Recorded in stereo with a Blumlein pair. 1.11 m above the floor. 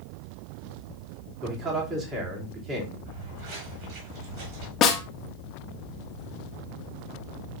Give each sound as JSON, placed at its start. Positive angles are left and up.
{"t": 1.4, "sound": "a man speaking", "azimuth_deg": -20, "distance_m": 3.0}
{"t": 3.0, "sound": "footsteps", "azimuth_deg": -35, "distance_m": 5.5}
{"t": 4.8, "sound": "a snare drum", "azimuth_deg": 30, "distance_m": 1.1}